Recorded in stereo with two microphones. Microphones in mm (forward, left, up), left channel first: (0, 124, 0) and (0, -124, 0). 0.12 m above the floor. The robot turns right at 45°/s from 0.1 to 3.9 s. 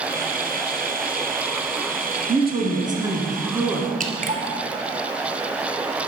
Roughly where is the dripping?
Right.